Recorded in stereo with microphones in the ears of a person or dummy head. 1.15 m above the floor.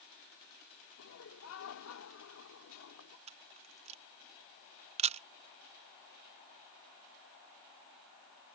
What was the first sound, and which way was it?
Laughter, 75° left (ahead or behind).